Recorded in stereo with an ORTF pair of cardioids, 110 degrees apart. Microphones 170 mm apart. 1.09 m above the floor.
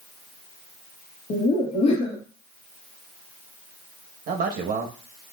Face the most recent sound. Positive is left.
turn(degrees=-60)